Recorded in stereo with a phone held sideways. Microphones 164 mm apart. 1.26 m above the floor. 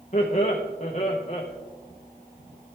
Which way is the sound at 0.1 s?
40° left (ahead or behind).